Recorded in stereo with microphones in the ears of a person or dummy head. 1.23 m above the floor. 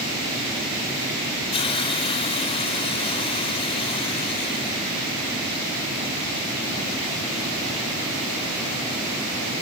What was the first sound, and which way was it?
A hiss, 30° left (ahead or behind).